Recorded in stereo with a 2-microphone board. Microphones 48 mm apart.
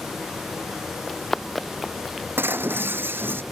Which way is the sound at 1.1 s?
5° left (ahead or behind).